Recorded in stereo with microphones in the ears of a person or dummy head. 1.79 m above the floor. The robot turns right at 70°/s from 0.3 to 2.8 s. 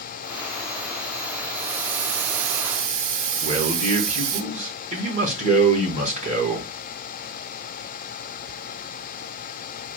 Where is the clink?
No clink in this recording.